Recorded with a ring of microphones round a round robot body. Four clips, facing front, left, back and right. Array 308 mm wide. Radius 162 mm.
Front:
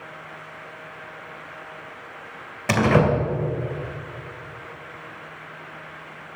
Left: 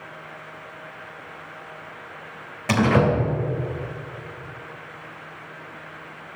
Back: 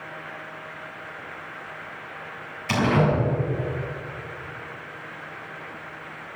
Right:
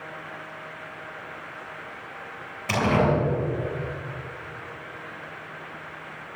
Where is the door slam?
25° left, 3 m.